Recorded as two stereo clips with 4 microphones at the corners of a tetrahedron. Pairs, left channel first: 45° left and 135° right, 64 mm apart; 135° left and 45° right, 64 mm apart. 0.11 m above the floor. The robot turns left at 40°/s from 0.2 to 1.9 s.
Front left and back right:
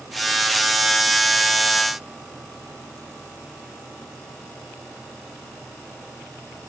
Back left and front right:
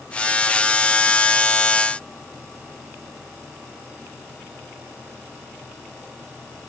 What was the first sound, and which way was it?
Only background noise.